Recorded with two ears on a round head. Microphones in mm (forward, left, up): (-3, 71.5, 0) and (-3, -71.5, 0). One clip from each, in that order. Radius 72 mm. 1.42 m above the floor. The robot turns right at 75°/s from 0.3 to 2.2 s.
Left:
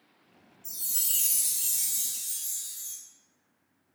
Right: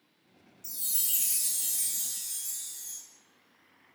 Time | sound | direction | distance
0.6 | a chime | 35° right | 2.5 m